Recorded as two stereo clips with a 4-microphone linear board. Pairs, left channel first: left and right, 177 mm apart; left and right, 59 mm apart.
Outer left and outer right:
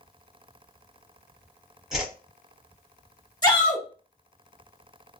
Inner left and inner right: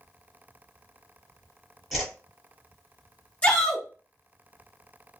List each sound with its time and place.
1.9 s a whoosh: centre (ahead or behind), 1.1 m
3.4 s a shout: 25° left (ahead or behind), 0.9 m